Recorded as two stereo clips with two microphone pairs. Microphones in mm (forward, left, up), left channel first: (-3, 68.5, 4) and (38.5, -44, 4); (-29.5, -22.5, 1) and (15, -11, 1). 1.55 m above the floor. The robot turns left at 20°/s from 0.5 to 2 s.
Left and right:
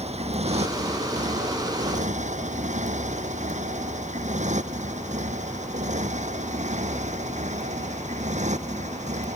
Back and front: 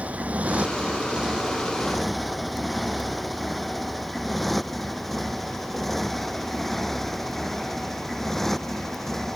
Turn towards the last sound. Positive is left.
turn(degrees=-80)